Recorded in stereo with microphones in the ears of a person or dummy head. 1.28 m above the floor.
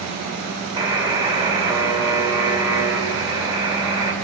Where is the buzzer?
20° right (ahead or behind), 3 m.